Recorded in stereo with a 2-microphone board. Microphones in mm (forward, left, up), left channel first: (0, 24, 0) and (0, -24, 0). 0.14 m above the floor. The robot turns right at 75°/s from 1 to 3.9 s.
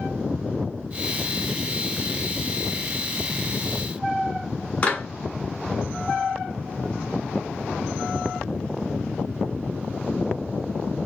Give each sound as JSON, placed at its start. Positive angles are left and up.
{"t": 4.8, "sound": "a clap", "side_deg": 20, "distance_m": 1.4}